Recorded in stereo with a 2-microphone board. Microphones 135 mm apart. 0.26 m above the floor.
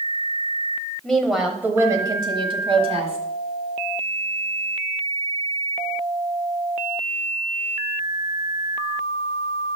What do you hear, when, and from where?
1.0 s a woman speaking: 5° left (ahead or behind), 1.0 m; by 3.2 s 55° right (ahead or behind), 1.5 m